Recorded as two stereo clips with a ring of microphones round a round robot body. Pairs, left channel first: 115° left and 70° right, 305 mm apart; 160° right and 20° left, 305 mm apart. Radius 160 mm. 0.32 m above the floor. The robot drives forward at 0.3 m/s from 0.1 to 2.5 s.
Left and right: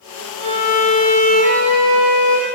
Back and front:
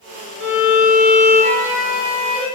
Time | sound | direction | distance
0.4 | a violin | 30° right | 1.5 m